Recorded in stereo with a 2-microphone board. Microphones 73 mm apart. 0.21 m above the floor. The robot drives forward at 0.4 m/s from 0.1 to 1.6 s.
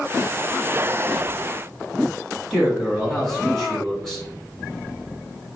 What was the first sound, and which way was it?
A man speaking, 5° left (ahead or behind).